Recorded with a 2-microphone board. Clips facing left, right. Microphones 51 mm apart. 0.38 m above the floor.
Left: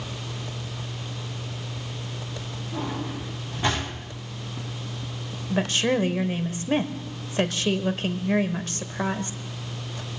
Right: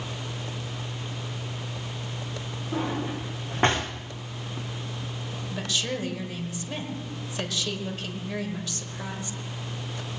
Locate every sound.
2.7 s a drawer: 55° right (ahead or behind), 8.5 m
5.5 s a woman speaking: 45° left (ahead or behind), 1.3 m